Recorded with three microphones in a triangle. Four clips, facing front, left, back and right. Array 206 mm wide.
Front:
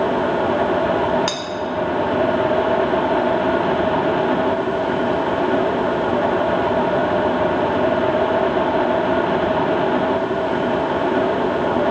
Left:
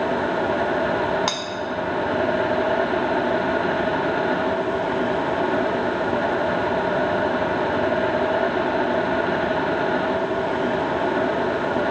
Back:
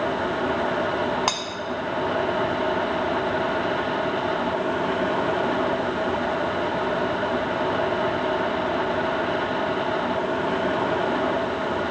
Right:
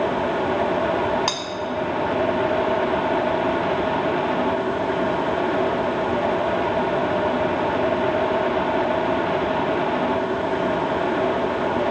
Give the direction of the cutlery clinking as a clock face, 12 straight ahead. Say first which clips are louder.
Even, front 1 dB; 6 o'clock.